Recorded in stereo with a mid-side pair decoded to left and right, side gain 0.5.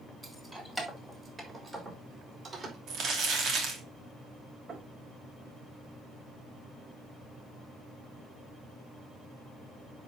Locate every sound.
0.2 s keys jangling: 15° right, 3 m; by 2.8 s 35° right, 5 m
2.9 s crumpling: 65° right, 2.5 m
4.7 s knocking: 55° right, 5.5 m